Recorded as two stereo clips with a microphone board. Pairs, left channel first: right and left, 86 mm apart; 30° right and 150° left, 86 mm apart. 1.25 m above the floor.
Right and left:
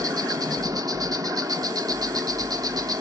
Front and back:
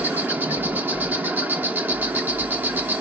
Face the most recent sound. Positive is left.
turn(degrees=90)